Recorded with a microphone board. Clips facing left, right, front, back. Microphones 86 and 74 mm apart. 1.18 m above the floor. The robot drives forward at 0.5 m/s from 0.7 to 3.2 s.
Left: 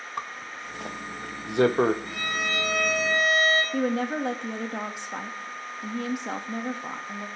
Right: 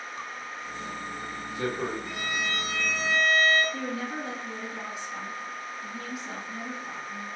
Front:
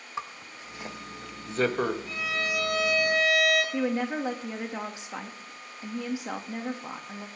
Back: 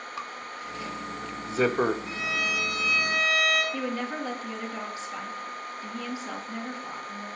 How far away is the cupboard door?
No cupboard door in this recording.